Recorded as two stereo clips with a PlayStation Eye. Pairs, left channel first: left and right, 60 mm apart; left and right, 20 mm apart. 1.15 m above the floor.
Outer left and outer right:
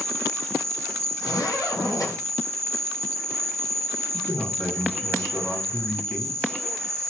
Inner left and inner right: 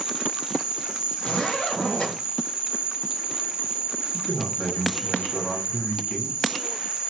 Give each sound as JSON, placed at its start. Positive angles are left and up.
{"t": 0.0, "sound": "an insect", "side_deg": -55, "distance_m": 0.9}
{"t": 1.2, "sound": "a zipper", "side_deg": 70, "distance_m": 0.7}
{"t": 4.1, "sound": "a man speaking", "side_deg": 15, "distance_m": 1.3}